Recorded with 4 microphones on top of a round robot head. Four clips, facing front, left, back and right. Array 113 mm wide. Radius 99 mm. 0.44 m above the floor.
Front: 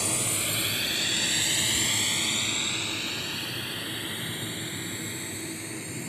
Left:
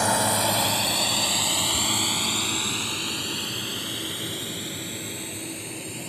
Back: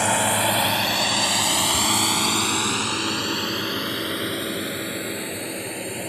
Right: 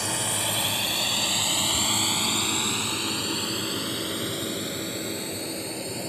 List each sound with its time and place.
0.0 s a drone: 140° left; by 6.1 s 150° right